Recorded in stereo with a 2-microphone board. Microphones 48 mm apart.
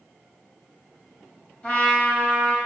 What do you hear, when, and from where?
1.6 s a trumpet: 20° left (ahead or behind), 3 m